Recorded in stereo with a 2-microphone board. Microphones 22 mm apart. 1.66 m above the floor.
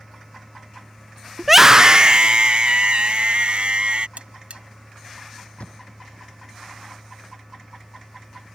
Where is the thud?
85° left.